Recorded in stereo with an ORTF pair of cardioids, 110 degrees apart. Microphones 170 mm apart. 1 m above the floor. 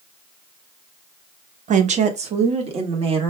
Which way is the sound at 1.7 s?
45° right.